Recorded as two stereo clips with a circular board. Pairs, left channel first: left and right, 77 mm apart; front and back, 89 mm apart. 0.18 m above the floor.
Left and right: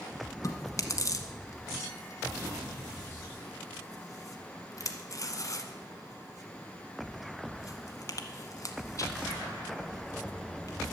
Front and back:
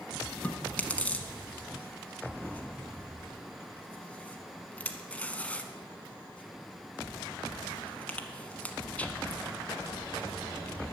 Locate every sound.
0.4 s chewing: 70° left, 0.9 m